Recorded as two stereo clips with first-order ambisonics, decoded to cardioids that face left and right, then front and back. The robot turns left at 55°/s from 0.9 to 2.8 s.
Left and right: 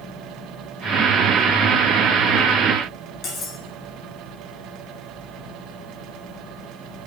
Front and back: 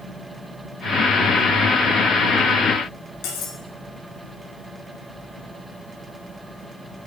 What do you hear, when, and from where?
3.2 s cutlery clinking: 35° left, 2.0 m